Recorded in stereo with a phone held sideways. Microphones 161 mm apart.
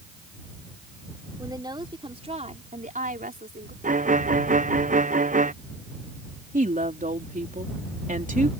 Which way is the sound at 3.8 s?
55° right (ahead or behind).